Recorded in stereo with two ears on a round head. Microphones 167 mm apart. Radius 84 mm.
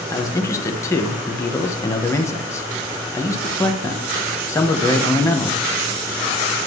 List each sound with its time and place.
0.1 s a man speaking: 15° left (ahead or behind), 0.9 m